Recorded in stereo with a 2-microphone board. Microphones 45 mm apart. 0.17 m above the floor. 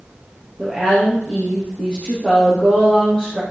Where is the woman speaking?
20° left (ahead or behind), 4.5 m.